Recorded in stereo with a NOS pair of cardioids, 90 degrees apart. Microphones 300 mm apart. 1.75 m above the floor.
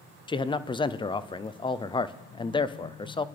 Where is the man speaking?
15° left, 0.6 m.